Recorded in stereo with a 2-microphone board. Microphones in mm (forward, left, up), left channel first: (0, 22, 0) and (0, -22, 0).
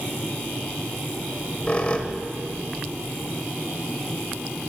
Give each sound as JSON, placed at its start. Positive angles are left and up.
{"t": 1.3, "sound": "a squeak", "side_deg": 30, "distance_m": 1.3}